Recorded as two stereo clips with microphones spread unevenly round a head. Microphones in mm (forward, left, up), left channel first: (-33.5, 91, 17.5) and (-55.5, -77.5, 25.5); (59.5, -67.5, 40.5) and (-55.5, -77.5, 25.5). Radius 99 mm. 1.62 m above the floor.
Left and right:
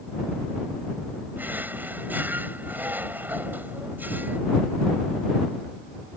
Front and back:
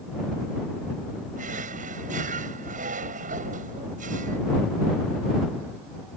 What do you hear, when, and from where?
1.4 s a drawer: 175° right